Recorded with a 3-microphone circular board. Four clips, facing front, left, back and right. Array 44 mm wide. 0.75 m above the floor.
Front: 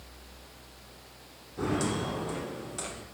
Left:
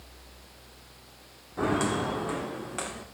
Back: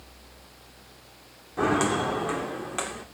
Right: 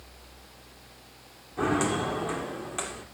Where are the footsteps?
170° left, 3 m.